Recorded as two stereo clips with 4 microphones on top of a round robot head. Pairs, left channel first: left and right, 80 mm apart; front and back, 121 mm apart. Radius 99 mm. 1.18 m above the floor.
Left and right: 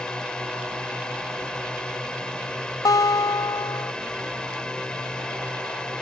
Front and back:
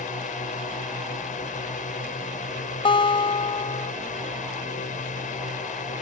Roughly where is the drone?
Ahead.